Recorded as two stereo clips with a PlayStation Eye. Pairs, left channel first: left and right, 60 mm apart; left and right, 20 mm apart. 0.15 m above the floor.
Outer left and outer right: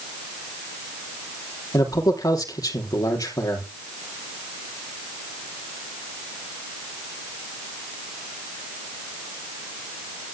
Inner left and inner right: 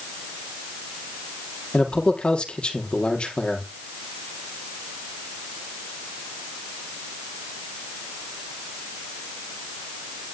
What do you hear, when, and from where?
1.7 s a man speaking: 75° left (ahead or behind), 4.5 m